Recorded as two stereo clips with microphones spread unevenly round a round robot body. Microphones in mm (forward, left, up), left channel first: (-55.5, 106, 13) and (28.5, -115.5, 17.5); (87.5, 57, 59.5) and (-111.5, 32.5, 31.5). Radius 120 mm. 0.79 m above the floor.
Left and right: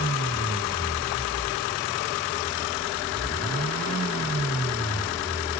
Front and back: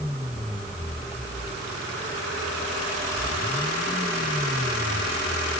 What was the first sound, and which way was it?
Only background noise.